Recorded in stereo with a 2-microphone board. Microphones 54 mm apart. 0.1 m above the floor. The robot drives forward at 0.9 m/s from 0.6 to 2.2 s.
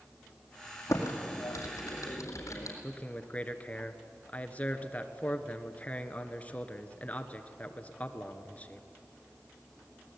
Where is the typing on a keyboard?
70° left (ahead or behind), 3 m; by 2.7 s 75° left (ahead or behind), 3 m.